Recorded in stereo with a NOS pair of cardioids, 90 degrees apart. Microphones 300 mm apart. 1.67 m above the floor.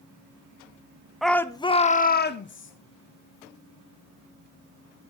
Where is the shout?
Straight ahead, 0.8 m; by 2.7 s 45° left, 1.2 m.